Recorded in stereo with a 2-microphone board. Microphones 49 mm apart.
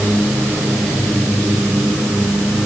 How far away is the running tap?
No running tap in this recording.